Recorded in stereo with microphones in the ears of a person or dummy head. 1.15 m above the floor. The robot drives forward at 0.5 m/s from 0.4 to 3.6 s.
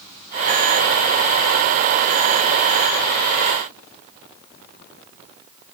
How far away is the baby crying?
No baby crying in this recording.